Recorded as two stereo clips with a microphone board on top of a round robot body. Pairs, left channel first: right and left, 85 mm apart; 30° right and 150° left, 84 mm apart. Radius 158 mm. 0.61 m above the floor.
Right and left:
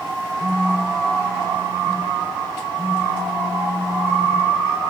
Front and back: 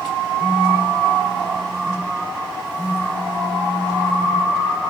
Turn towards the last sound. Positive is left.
turn(degrees=40)